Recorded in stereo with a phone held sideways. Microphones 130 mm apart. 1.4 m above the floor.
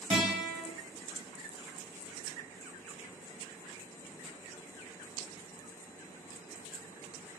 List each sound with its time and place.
0.1 s a guitar: 50° right (ahead or behind), 1.7 m